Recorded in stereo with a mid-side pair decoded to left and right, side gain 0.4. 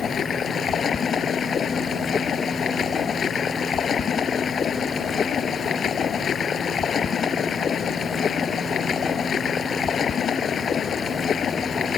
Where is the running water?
55° left.